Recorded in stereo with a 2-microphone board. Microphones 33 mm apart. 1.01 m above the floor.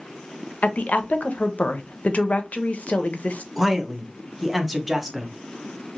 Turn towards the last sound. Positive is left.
turn(degrees=-5)  # may be behind; listen again after turning